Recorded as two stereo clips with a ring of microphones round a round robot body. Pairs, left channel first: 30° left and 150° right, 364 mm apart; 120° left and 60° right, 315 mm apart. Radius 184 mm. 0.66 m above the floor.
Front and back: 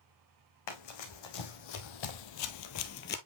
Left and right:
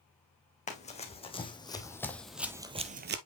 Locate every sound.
0.7 s running footsteps: 50° left, 2 m; by 3.2 s 25° right, 0.8 m